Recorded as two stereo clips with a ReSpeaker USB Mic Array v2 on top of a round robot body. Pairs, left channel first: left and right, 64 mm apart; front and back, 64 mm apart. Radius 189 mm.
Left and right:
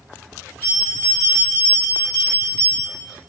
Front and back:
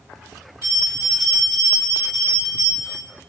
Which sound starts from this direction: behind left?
A bell, at 0.6 s.